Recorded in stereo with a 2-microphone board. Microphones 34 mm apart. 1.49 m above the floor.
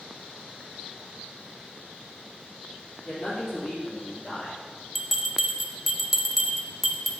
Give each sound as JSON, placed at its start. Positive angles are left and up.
{"t": 3.0, "sound": "a man speaking", "side_deg": 20, "distance_m": 4.0}
{"t": 5.0, "sound": "a bell", "side_deg": -5, "distance_m": 1.0}